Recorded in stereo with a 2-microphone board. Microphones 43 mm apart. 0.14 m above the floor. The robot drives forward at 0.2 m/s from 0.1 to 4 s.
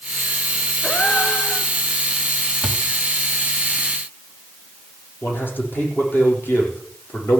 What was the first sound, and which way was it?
A gasp, 35° left (ahead or behind).